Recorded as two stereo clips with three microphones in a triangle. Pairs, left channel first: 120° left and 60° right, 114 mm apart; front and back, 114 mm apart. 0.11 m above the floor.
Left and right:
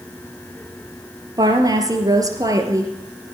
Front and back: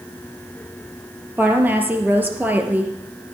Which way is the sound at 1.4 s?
110° right.